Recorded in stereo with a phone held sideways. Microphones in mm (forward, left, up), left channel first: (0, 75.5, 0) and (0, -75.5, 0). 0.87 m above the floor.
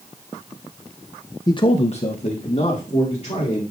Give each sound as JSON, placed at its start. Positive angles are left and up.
{"t": 1.5, "sound": "a man speaking", "side_deg": 25, "distance_m": 0.6}